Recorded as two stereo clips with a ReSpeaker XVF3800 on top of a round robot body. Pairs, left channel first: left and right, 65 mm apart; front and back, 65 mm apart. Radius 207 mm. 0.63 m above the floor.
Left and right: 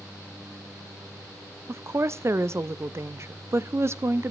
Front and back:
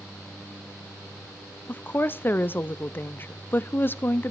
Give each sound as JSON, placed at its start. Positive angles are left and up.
{"t": 1.7, "sound": "a woman speaking", "azimuth_deg": -50, "distance_m": 0.7}